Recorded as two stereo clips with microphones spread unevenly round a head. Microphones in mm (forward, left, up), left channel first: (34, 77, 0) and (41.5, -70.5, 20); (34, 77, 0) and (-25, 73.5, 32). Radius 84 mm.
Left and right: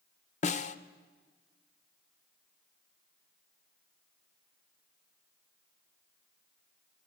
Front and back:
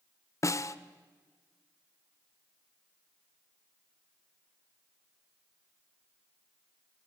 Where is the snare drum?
50° left, 1.0 m.